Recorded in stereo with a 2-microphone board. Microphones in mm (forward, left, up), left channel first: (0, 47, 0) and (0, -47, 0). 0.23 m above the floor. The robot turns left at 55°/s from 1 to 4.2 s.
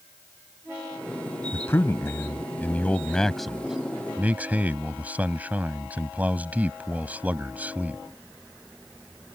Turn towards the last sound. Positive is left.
turn(degrees=-15)  # may be behind; listen again after turning